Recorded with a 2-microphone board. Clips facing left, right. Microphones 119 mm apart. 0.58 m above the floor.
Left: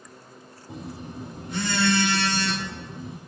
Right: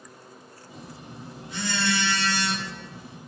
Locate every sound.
0.7 s a phone buzzing: 50° left (ahead or behind), 1.8 m